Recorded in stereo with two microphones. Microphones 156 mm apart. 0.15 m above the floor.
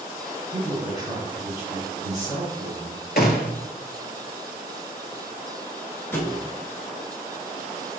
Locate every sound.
0.5 s a man speaking: 25° right (ahead or behind), 1.8 m
3.2 s a gunshot: 75° left (ahead or behind), 0.7 m
6.1 s a thud: 15° left (ahead or behind), 0.9 m